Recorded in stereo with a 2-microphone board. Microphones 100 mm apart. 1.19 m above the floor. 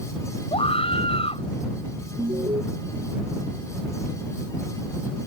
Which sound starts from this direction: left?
A scream, at 0.5 s.